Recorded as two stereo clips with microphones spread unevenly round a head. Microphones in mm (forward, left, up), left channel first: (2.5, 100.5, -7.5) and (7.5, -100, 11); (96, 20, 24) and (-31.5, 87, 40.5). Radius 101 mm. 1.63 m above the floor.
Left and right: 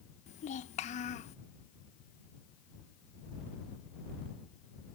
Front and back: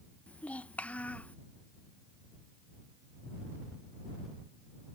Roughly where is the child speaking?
Ahead left.